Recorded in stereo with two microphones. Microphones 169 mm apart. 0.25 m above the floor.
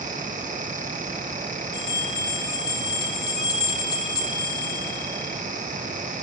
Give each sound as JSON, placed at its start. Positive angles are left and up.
{"t": 1.7, "sound": "a bell", "side_deg": 20, "distance_m": 8.0}